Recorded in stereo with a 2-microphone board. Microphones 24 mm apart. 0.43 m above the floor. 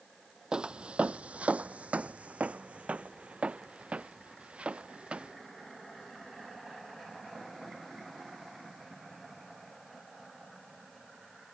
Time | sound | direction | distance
0.5 | footsteps | 35° right (ahead or behind) | ?